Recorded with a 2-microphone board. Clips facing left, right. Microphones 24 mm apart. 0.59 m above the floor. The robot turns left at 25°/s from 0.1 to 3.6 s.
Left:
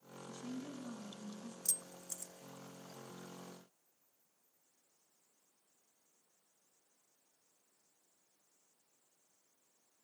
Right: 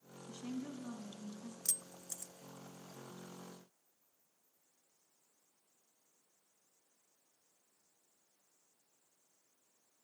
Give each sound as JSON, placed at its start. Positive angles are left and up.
{"t": 0.3, "sound": "a woman speaking", "azimuth_deg": -145, "distance_m": 5.0}
{"t": 1.6, "sound": "keys jangling", "side_deg": -25, "distance_m": 0.5}